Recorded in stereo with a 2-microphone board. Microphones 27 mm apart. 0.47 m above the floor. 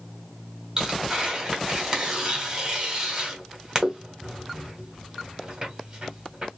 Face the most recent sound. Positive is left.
turn(degrees=-20)  # may be behind; listen again after turning